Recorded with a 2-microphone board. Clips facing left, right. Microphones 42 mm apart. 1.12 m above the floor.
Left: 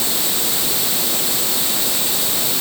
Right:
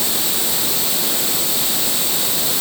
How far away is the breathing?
I don't hear breathing.